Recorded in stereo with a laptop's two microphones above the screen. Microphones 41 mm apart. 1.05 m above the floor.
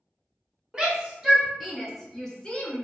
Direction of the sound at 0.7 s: 25° right (ahead or behind).